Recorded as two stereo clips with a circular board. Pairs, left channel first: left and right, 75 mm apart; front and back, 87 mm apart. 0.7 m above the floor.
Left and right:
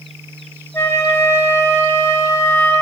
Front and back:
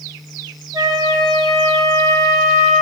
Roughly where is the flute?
Behind left.